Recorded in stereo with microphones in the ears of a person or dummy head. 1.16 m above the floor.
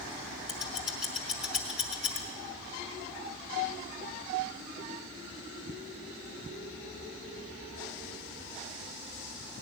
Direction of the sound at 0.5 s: Centre (ahead or behind).